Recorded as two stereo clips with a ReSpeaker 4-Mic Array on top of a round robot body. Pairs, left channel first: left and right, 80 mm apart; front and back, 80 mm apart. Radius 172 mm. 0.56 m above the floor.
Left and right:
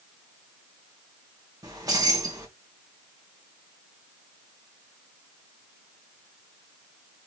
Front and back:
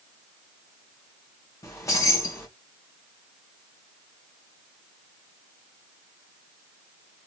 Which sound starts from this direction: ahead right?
Keys jangling, at 1.6 s.